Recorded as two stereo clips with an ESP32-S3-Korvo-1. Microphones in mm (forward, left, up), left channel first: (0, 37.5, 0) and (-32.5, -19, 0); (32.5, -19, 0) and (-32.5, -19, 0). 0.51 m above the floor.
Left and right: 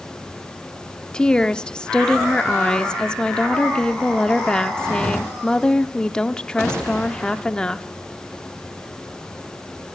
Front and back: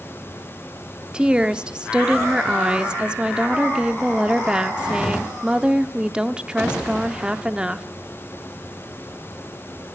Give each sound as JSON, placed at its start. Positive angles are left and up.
{"t": 1.1, "sound": "a woman speaking", "azimuth_deg": 120, "distance_m": 0.8}